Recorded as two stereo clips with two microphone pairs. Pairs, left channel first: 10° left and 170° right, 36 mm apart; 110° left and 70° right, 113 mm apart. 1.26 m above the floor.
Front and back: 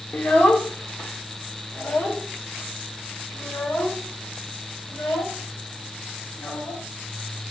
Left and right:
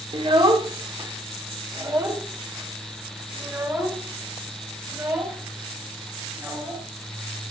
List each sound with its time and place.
0.1 s a child speaking: 30° right, 3 m; by 6.8 s 5° left, 7.5 m